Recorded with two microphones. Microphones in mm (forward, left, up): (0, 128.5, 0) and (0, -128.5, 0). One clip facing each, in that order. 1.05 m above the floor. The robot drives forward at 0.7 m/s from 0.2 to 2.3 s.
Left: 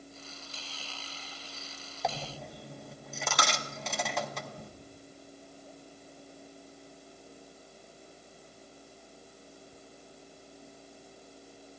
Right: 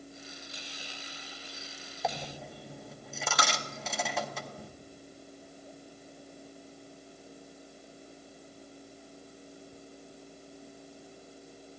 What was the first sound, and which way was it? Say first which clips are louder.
A dropped coin: even; centre (ahead or behind).